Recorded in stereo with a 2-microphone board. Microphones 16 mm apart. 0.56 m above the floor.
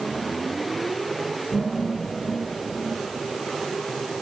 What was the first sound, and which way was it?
Laughter, 5° left (ahead or behind).